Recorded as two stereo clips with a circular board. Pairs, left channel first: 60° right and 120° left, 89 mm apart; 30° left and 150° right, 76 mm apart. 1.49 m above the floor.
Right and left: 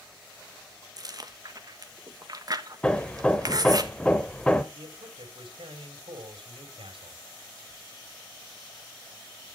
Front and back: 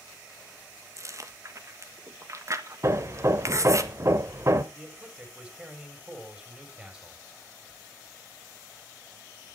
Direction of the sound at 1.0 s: 165° left.